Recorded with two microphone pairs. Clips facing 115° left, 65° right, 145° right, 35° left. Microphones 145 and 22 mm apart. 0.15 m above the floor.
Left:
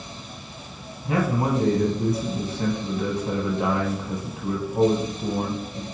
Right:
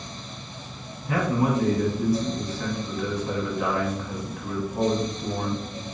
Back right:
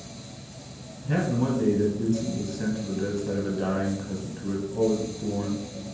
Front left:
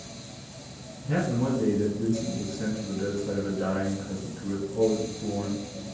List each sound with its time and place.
1.1 s a man speaking: 150° left, 1.7 m